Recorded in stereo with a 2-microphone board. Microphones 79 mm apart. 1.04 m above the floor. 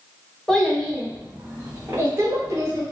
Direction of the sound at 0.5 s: 10° left (ahead or behind).